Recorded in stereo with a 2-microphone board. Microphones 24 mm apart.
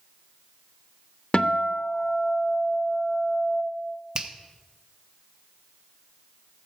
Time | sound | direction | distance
1.3 | a guitar | 40° left (ahead or behind) | 0.7 m
4.2 | a finger snap | 35° right (ahead or behind) | 0.7 m